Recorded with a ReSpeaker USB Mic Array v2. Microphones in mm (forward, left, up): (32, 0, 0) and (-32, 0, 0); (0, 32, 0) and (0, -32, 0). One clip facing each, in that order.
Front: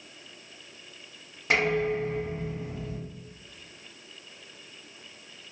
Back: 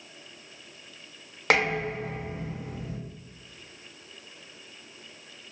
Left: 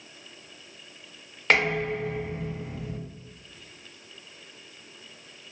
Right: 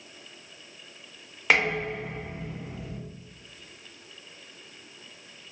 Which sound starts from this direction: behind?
Dishes clattering, at 1.5 s.